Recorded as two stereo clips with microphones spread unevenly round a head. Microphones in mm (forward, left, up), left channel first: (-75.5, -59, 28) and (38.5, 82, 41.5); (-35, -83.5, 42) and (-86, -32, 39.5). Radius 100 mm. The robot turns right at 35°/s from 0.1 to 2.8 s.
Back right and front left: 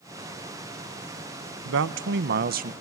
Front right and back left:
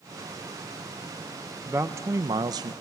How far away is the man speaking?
About 0.6 m.